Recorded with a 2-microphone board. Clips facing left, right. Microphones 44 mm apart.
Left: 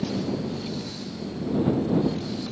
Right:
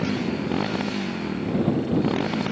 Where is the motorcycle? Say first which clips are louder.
Right 2 dB; 70° right (ahead or behind); by 2.5 s 65° right (ahead or behind).